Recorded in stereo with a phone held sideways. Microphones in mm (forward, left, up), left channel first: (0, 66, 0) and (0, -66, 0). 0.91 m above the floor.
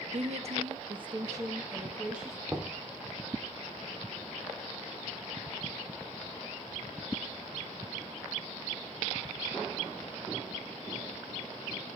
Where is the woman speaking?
55° right (ahead or behind), 1.2 m; by 2.4 s 5° right (ahead or behind), 1.8 m.